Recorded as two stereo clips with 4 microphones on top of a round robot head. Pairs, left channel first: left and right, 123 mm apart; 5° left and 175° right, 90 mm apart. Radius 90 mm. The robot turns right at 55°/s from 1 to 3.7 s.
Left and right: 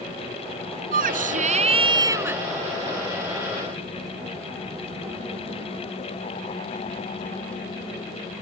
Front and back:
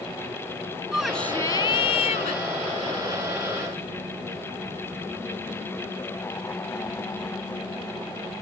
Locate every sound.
0.9 s a shout: 90° right; by 2.4 s 10° right